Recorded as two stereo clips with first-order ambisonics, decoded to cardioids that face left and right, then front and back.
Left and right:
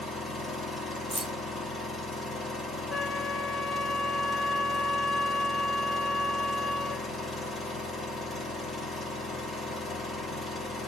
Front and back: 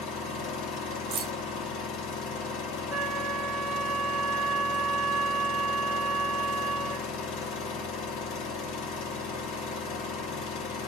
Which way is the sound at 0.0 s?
10° left.